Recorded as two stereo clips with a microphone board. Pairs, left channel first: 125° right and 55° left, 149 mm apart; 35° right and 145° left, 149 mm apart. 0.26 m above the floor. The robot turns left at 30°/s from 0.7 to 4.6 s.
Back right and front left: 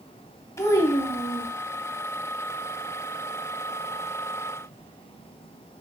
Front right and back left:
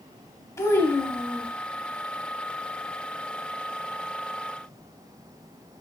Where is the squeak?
No squeak in this recording.